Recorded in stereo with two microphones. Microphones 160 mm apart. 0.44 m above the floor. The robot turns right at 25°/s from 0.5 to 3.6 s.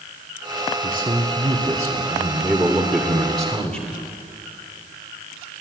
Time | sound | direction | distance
0.8 | a man speaking | 60° right | 1.6 m